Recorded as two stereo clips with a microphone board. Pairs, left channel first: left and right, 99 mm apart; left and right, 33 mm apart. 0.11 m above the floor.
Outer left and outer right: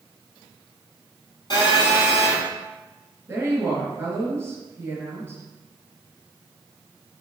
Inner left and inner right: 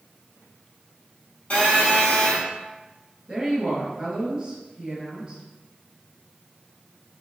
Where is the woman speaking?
25° right (ahead or behind), 1.1 m.